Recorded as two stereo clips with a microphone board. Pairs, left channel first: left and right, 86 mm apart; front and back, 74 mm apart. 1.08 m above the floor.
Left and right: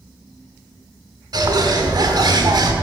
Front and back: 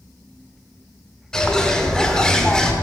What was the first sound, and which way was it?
A bird, 80° right.